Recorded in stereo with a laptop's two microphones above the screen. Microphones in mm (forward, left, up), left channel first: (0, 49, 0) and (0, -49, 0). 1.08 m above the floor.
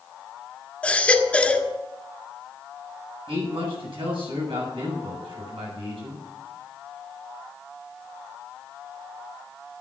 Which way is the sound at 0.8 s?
15° left (ahead or behind).